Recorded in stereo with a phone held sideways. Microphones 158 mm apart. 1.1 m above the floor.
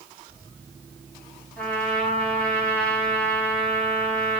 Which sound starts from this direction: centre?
A trumpet, at 1.6 s.